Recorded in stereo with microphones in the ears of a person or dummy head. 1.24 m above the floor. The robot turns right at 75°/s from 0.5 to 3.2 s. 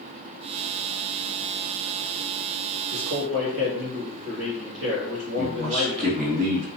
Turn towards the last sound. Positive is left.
turn(degrees=-45)  # may be behind; listen again after turning